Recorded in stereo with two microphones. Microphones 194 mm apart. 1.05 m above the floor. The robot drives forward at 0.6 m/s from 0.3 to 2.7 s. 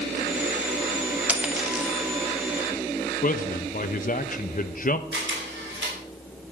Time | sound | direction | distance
1.3 | a dropped coin | 5° right (ahead or behind) | 1.1 m
3.2 | a man speaking | 45° left (ahead or behind) | 0.9 m
5.1 | a camera shutter | 75° right (ahead or behind) | 3.5 m